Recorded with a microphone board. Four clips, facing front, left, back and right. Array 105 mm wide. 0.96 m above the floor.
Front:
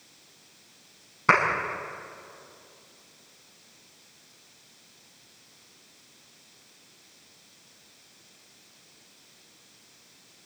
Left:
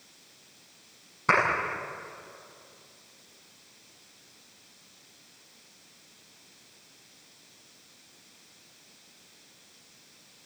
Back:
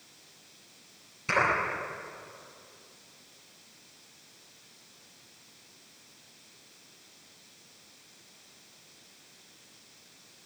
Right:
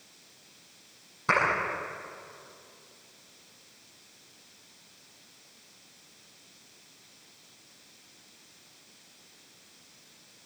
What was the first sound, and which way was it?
A clap, 15° left.